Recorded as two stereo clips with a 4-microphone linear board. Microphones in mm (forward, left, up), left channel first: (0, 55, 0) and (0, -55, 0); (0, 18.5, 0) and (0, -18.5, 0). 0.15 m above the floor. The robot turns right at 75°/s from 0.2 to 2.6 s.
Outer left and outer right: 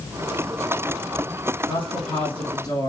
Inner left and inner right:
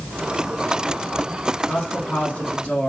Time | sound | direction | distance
1.7 | a woman speaking | 65° left | 2.5 m